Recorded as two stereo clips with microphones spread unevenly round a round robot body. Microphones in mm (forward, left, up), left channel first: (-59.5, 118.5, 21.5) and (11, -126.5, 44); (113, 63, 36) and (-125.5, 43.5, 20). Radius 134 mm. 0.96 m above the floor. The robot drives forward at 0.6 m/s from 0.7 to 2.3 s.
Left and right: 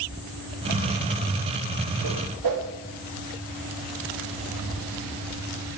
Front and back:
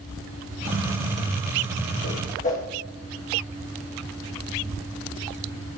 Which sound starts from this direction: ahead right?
A whoosh, at 2.0 s.